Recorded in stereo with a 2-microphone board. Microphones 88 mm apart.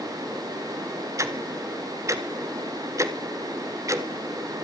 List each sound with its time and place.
1.2 s ticking: 35° right (ahead or behind), 1.5 m